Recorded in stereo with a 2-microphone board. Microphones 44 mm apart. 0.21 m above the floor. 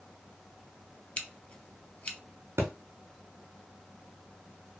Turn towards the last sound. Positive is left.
turn(degrees=-80)